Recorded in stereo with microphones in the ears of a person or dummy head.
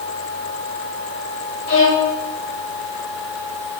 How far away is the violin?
About 1.5 m.